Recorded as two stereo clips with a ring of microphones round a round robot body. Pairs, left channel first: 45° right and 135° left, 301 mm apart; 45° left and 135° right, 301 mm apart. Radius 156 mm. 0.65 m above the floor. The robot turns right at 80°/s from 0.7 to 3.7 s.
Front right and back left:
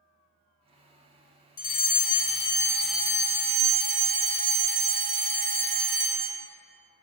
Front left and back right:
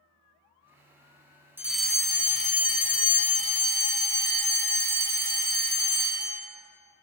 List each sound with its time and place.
1.6 s a fire alarm: 60° right, 1.6 m; by 6.4 s 110° left, 1.6 m